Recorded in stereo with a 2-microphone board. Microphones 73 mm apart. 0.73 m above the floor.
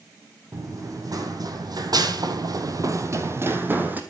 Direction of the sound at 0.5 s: 50° right (ahead or behind).